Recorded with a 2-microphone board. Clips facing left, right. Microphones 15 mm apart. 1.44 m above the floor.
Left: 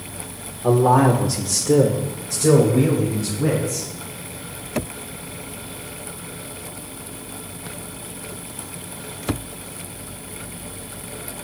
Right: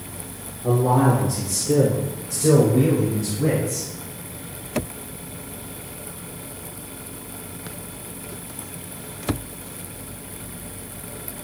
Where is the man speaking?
85° left, 1.1 m; by 3.9 s centre (ahead or behind), 3 m.